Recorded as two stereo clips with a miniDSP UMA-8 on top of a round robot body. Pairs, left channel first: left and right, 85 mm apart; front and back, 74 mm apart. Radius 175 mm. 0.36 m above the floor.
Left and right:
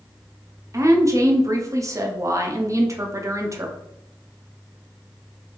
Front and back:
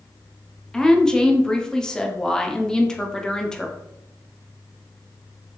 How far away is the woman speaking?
About 1.0 m.